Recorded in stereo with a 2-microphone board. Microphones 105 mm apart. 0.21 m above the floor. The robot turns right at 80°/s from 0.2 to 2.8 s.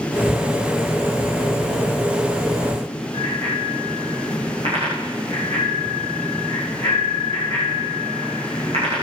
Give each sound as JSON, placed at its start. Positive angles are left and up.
{"t": 3.1, "sound": "a bicycle bell", "side_deg": -75, "distance_m": 9.5}